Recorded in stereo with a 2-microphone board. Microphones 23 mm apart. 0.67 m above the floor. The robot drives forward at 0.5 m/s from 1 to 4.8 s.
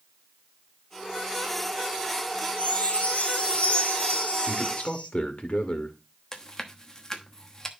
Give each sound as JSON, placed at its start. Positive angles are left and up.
{"t": 2.6, "sound": "a chime", "side_deg": 80, "distance_m": 2.0}
{"t": 4.5, "sound": "a man speaking", "side_deg": 65, "distance_m": 1.9}
{"t": 6.3, "sound": "chewing", "side_deg": 25, "distance_m": 1.0}